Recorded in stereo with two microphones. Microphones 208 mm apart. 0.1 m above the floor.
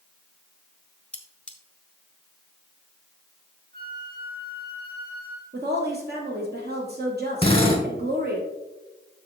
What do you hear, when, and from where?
1.1 s cutlery clinking: 5° left (ahead or behind), 1.0 m
3.7 s a flute: 45° right (ahead or behind), 2 m
5.5 s a woman speaking: 50° right (ahead or behind), 2.5 m
7.4 s a drill: 25° left (ahead or behind), 3.5 m